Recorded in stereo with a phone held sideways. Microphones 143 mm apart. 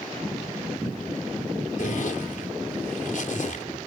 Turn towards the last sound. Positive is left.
turn(degrees=65)  # may be behind; listen again after turning